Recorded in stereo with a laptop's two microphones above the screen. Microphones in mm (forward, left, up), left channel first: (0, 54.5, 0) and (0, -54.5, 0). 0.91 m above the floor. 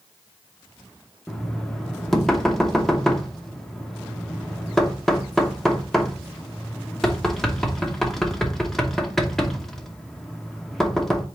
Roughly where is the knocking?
Centre.